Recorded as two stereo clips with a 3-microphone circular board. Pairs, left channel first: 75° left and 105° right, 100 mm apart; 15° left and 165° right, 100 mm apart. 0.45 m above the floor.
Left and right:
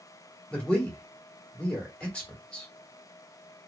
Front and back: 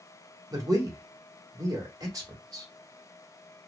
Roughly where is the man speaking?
Behind left.